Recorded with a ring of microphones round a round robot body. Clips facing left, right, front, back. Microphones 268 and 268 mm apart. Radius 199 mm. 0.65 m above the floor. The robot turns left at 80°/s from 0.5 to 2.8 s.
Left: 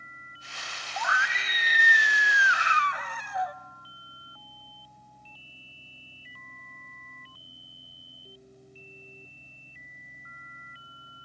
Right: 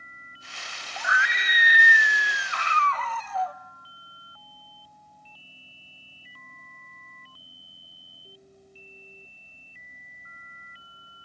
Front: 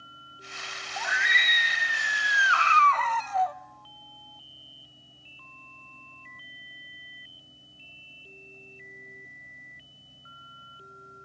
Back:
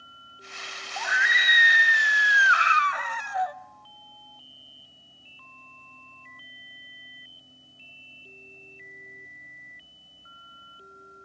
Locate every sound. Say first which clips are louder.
1.0 s a scream: right 1 dB, back 1 dB; 80° right, 1.0 m; by 3.5 s 130° left, 1.0 m